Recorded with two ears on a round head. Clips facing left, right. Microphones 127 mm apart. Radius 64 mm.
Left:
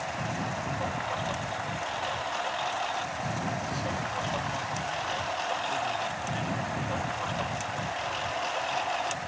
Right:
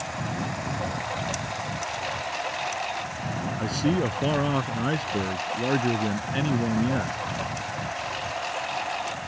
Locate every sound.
0.0 s a lawn mower: 15° right (ahead or behind); by 9.3 s 5° right (ahead or behind)
3.6 s a man speaking: 80° right